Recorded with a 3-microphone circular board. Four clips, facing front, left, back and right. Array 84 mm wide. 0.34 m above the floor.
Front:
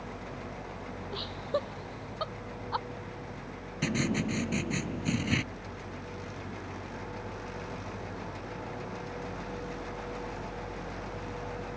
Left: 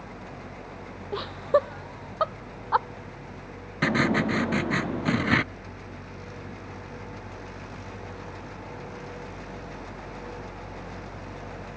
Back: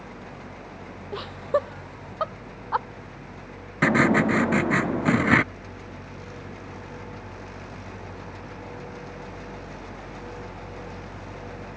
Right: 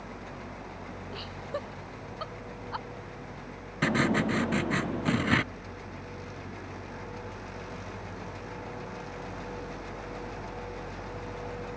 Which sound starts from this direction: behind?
Writing, at 3.8 s.